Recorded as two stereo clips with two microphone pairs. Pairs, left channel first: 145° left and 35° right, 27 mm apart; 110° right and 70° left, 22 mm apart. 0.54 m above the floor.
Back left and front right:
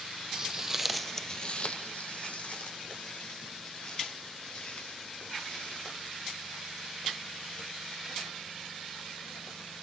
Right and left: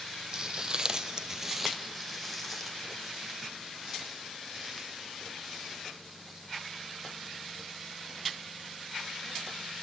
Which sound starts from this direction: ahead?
Footsteps, at 0.3 s.